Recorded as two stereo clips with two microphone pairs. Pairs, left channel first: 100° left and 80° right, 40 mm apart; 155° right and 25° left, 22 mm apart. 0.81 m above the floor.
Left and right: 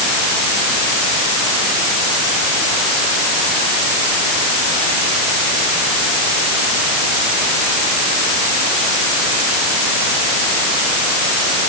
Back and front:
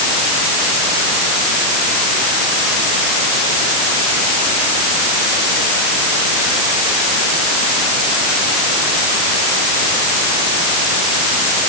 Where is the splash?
No splash in this recording.